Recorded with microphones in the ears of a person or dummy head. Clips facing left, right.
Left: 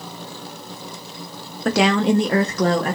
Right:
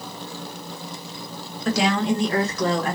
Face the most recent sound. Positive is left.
turn(degrees=40)  # may be behind; listen again after turning